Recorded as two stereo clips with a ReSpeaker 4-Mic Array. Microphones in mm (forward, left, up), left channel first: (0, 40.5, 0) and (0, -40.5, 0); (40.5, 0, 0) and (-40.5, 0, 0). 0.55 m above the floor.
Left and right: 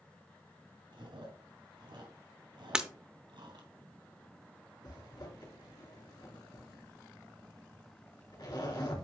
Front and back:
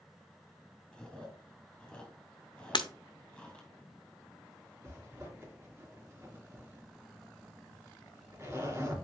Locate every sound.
0.9 s chewing: 80° right, 3 m
2.7 s breaking glass: 10° right, 0.8 m
4.8 s a zipper: 125° left, 3 m